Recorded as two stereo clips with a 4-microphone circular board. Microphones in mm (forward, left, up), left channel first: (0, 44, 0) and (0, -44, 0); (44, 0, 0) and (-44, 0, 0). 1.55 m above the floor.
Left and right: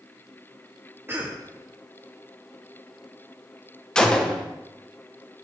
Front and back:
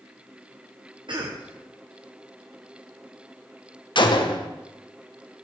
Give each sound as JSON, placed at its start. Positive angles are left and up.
{"t": 1.1, "sound": "a cough", "azimuth_deg": -155, "distance_m": 0.8}
{"t": 4.0, "sound": "a gunshot", "azimuth_deg": 10, "distance_m": 0.8}